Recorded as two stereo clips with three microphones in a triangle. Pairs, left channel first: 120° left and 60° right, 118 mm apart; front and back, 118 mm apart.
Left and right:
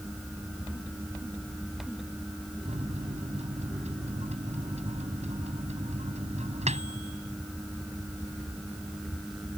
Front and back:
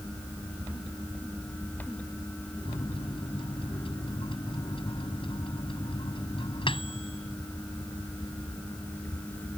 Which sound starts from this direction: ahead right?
A microwave, at 2.6 s.